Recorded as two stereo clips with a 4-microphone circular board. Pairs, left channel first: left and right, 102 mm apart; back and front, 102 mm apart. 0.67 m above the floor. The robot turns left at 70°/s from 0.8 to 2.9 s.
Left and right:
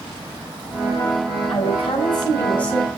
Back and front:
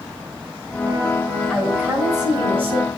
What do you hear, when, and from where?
1.5 s a woman speaking: 95° left, 4 m; by 2.9 s 5° right, 4 m